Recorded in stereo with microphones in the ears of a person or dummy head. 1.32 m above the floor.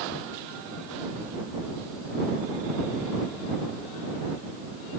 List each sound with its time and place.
Only background noise.